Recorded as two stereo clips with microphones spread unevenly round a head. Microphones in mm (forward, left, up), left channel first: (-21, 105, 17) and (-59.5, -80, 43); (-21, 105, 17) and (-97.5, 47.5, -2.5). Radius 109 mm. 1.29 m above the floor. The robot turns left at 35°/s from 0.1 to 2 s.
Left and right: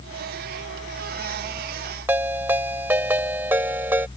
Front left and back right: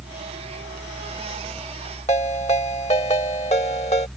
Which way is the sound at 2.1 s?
20° right.